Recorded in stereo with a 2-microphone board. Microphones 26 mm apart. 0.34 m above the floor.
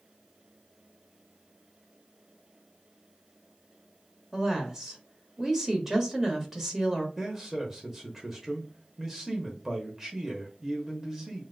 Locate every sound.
4.3 s a woman speaking: 20° right (ahead or behind), 1.2 m
7.2 s a man speaking: 10° right (ahead or behind), 0.9 m